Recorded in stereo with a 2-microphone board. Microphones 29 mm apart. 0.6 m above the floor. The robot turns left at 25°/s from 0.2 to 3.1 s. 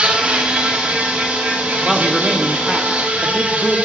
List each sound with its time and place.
0.0 s an insect: 50° right, 2.5 m; by 3.9 s 120° right, 2.5 m
1.8 s a man speaking: 160° right, 0.8 m; by 3.8 s 165° left, 0.8 m